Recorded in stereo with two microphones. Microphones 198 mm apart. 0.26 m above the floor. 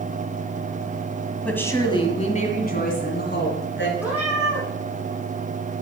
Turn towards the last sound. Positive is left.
turn(degrees=-10)  # may be behind; listen again after turning